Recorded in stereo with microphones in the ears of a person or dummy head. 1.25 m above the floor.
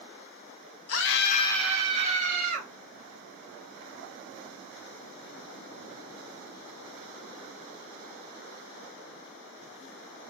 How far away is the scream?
About 1.0 m.